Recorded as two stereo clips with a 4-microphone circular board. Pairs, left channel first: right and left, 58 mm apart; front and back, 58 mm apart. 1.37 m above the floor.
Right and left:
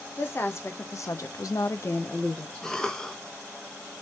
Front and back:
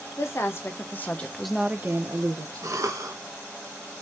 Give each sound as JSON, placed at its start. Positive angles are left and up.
{"t": 0.2, "sound": "a woman speaking", "azimuth_deg": -45, "distance_m": 1.3}
{"t": 2.6, "sound": "a cough", "azimuth_deg": -170, "distance_m": 0.8}